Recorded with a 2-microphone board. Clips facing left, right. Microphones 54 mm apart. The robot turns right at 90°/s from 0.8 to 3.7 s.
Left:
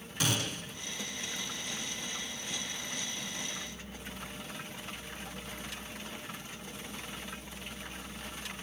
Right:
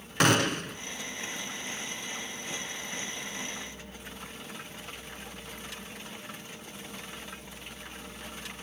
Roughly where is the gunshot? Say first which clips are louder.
Right 10 dB; right.